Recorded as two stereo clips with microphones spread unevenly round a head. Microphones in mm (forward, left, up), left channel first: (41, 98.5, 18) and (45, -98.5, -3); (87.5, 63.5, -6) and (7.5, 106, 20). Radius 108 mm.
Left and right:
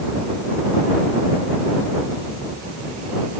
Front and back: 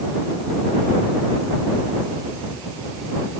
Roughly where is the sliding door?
I don't hear a sliding door.